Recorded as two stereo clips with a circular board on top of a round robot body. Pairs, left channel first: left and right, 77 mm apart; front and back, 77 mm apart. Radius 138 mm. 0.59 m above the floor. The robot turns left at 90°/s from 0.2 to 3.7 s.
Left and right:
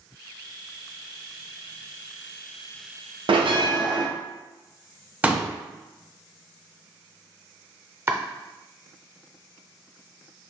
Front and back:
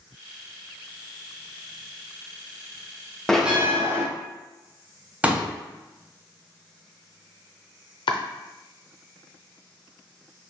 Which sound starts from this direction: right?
A bell, at 3.3 s.